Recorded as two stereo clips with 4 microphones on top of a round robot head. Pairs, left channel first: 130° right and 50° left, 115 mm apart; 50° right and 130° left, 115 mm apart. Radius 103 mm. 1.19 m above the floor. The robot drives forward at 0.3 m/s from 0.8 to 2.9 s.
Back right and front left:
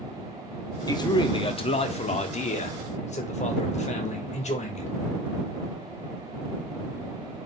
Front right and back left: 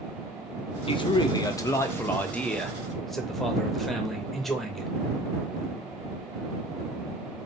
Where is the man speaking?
80° right, 0.6 m; by 4.9 s 135° right, 0.8 m.